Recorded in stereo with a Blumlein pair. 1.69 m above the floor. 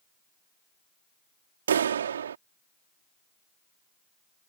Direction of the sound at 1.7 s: 65° right.